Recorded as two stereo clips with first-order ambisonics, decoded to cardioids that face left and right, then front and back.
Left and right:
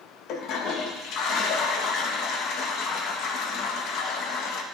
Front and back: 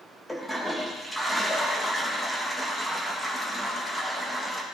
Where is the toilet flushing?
90° left, 1.1 m.